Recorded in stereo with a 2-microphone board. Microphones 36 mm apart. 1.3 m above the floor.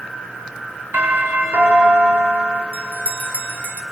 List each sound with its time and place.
0.9 s a doorbell: 75° right (ahead or behind), 8 m
2.7 s a bell: 45° right (ahead or behind), 1.4 m